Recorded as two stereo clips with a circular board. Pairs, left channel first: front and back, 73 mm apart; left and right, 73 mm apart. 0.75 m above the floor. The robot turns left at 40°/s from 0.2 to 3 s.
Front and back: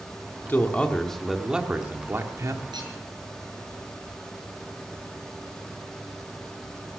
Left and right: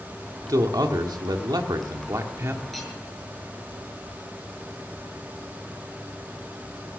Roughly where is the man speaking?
Ahead right.